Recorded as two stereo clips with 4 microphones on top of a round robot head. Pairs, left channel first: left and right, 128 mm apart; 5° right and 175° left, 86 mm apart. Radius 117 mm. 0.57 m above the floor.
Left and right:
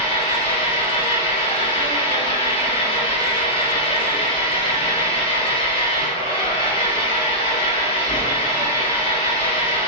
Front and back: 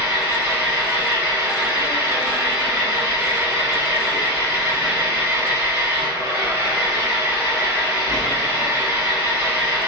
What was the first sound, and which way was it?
An engine running, 130° left.